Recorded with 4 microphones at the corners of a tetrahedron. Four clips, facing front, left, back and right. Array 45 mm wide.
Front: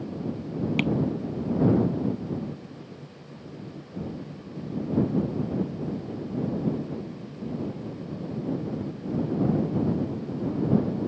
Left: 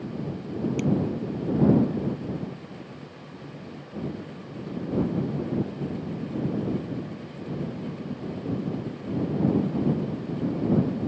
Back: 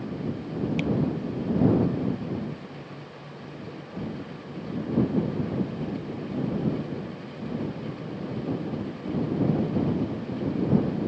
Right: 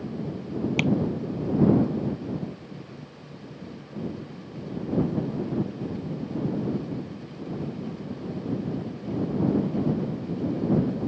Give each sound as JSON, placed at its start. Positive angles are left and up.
{"t": 0.8, "sound": "tapping", "azimuth_deg": -60}